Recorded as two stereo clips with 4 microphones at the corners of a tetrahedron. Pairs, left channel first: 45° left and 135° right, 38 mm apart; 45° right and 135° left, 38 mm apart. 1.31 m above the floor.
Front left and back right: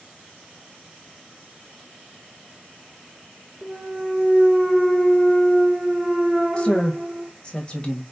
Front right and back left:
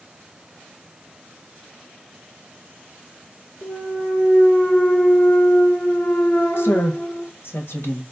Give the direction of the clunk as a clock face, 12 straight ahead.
2 o'clock.